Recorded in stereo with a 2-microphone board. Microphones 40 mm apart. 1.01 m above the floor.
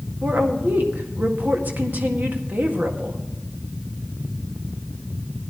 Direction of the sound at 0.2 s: 50° right (ahead or behind).